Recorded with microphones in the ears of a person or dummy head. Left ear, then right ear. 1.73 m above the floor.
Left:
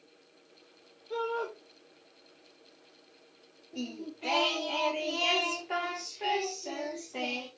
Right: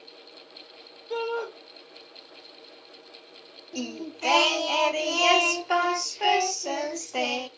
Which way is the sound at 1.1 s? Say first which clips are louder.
Right 3 dB; 35° right (ahead or behind).